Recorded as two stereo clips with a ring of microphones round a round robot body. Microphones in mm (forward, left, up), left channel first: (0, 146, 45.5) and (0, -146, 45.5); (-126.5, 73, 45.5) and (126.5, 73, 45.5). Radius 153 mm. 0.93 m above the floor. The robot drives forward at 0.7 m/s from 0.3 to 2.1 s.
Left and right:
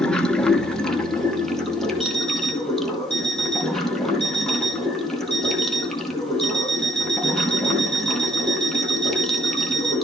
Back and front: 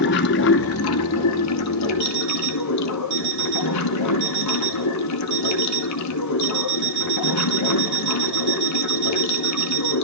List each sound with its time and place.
0.0 s running water: 175° left, 1.0 m; by 10.1 s straight behind, 2 m
2.0 s an alarm clock: 5° left, 4.5 m